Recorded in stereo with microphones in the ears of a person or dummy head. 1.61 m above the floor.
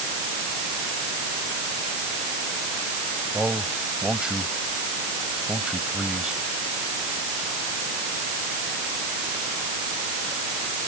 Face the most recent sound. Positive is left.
turn(degrees=0)  # may be behind; listen again after turning